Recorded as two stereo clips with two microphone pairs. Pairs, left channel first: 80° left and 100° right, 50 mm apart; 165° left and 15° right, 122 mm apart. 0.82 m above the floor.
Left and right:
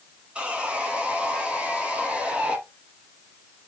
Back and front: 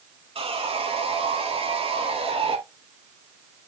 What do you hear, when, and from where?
0.3 s sawing: 35° right, 1.2 m